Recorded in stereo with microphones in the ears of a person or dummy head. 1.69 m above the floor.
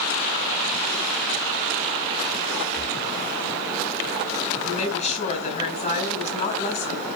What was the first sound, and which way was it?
Breathing, 40° left (ahead or behind).